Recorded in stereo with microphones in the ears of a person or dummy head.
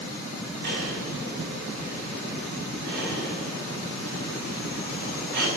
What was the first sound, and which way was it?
Breathing, 65° right (ahead or behind).